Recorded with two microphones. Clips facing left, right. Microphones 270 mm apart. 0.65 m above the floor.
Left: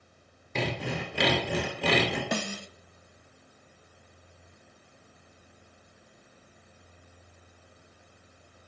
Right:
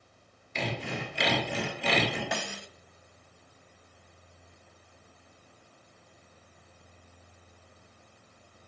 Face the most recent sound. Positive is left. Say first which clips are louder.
# left 5 dB
turn(degrees=45)  # may be behind; listen again after turning